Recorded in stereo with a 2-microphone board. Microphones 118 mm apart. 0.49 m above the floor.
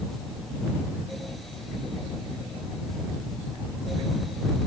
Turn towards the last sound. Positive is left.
No sound to turn to.